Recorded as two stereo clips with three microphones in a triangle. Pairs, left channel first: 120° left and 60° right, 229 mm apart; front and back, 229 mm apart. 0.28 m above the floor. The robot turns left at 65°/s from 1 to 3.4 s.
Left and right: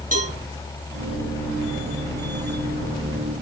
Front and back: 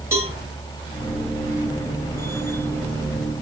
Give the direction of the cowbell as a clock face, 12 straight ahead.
3 o'clock.